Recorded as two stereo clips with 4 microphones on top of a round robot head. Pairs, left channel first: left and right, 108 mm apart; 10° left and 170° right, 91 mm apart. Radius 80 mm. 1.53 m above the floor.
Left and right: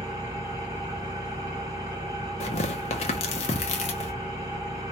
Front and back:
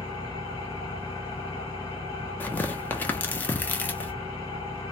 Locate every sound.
0.0 s an engine running: 45° right, 1.0 m
2.4 s tearing paper: 80° left, 0.6 m